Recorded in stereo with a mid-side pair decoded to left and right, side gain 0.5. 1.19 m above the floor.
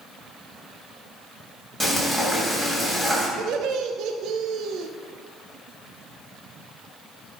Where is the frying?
5° left, 3 m.